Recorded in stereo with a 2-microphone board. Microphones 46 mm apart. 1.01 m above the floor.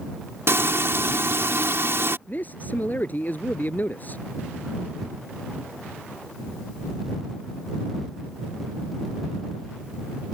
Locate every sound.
0.5 s frying: 65° right (ahead or behind)
2.3 s a man speaking: 40° left (ahead or behind)